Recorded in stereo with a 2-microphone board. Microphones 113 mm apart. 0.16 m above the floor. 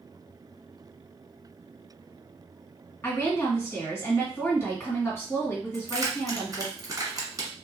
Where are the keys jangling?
35° right (ahead or behind), 1.4 m.